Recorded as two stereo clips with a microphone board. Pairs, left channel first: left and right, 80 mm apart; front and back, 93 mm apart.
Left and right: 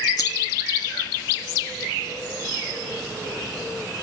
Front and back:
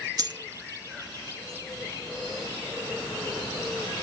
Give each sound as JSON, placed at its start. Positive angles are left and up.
{"t": 0.2, "sound": "a dropped coin", "azimuth_deg": 130, "distance_m": 0.5}